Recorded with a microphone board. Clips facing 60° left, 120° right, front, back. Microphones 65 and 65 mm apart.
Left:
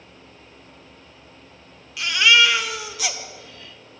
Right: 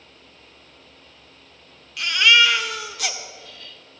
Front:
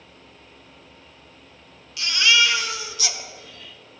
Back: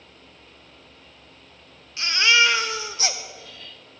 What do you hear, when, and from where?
2.0 s a baby crying: 145° left, 1.0 m